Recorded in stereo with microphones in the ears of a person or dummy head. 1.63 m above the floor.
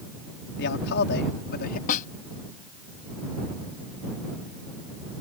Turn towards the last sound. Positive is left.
turn(degrees=50)  # may be behind; listen again after turning